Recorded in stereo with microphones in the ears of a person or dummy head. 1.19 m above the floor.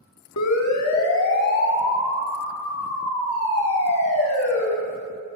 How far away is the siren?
About 2 m.